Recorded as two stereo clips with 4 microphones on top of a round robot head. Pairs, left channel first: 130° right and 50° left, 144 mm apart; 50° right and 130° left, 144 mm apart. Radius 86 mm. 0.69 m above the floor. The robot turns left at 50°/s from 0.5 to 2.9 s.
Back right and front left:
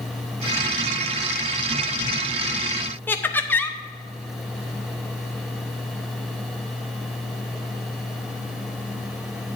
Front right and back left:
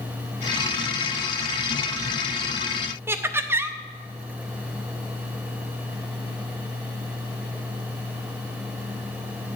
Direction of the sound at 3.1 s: 175° left.